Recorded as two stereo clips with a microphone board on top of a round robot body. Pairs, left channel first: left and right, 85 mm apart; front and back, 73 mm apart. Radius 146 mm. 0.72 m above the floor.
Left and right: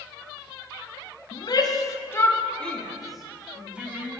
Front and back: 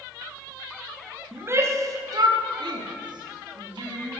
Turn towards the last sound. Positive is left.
turn(degrees=-165)